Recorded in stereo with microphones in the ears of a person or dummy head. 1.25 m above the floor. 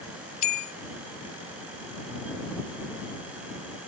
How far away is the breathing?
I don't hear breathing.